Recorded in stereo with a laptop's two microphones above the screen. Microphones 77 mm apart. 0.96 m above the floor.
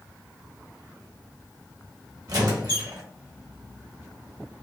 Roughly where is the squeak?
Right.